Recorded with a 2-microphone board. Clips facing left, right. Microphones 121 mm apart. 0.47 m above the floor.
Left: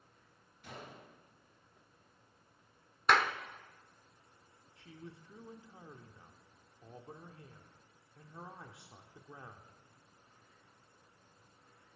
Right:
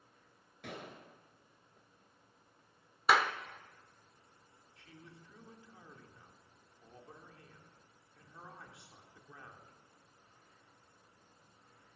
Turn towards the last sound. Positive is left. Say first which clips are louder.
# left 5 dB
turn(degrees=25)  # may be behind; listen again after turning